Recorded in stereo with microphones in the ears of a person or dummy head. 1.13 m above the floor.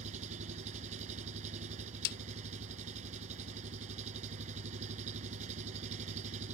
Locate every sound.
0.0 s an engine running: 40° right (ahead or behind)
2.0 s a snare drum: 55° left (ahead or behind)